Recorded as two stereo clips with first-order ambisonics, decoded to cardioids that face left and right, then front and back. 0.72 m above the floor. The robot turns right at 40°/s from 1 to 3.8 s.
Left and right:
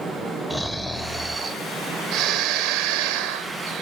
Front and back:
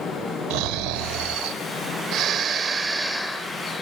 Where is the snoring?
175° right, 1.0 m; by 3.8 s 65° right, 1.0 m.